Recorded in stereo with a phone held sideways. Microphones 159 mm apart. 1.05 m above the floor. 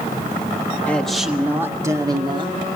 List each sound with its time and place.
0.9 s a man speaking: 10° left (ahead or behind), 1.3 m; by 2.6 s 30° right (ahead or behind), 2 m